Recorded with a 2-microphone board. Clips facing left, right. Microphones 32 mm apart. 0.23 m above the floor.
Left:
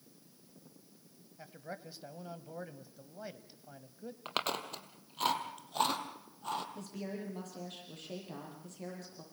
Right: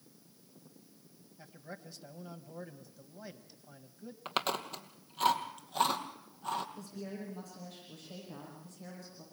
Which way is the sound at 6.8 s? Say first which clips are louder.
Left 1 dB; 55° left (ahead or behind).